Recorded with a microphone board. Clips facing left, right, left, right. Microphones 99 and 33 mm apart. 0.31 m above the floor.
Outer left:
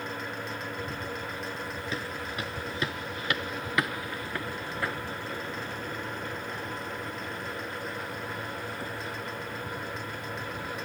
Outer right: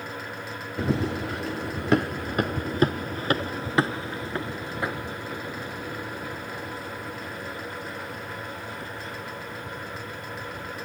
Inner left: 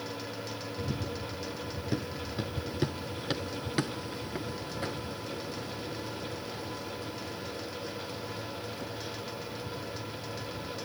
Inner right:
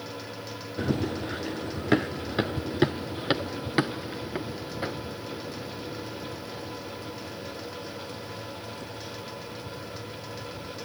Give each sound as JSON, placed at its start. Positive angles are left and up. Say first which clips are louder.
{"t": 0.8, "sound": "running footsteps", "louder": "outer right 9 dB, inner right 10 dB", "side_deg": -80}